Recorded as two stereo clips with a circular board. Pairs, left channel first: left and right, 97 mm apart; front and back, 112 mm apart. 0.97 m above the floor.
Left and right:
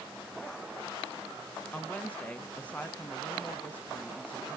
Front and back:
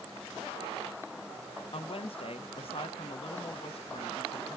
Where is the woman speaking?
15° left, 0.8 m.